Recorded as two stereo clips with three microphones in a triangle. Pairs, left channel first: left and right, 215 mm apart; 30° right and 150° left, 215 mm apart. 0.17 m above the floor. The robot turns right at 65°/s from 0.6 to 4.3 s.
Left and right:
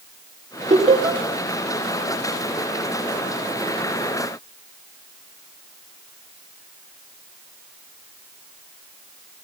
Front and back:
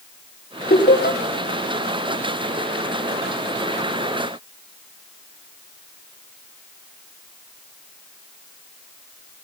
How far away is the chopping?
No chopping in this recording.